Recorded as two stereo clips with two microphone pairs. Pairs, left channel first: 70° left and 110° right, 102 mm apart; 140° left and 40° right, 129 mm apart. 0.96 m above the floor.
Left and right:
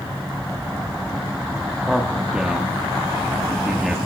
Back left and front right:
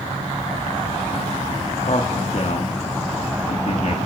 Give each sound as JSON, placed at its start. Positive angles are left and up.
{"t": 1.8, "sound": "a man speaking", "azimuth_deg": 170, "distance_m": 1.4}